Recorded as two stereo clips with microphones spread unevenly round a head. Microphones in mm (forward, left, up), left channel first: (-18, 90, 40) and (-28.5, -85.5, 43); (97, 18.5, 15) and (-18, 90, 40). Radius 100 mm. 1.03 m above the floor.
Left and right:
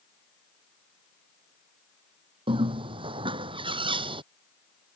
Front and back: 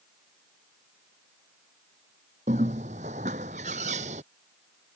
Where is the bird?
155° right.